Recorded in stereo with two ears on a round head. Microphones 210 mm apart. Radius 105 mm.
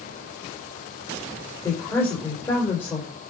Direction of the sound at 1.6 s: 10° left (ahead or behind).